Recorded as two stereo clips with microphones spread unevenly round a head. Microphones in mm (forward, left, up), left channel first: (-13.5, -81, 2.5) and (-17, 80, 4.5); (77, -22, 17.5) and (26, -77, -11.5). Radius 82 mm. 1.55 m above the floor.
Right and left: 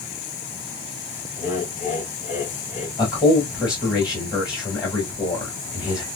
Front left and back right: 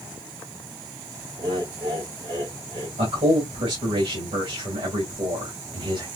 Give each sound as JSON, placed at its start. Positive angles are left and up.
{"t": 1.4, "sound": "laughter", "azimuth_deg": -135, "distance_m": 4.0}
{"t": 3.0, "sound": "a man speaking", "azimuth_deg": -160, "distance_m": 2.5}